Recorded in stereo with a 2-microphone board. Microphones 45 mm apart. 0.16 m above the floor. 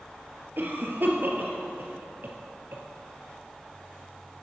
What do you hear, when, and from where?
0.6 s a cough: 50° right (ahead or behind), 2.5 m